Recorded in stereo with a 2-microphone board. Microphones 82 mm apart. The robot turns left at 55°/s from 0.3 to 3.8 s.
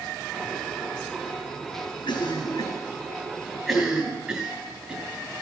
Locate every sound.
2.1 s a cough: 65° left (ahead or behind), 3.5 m; by 5.0 s 10° right (ahead or behind), 3.5 m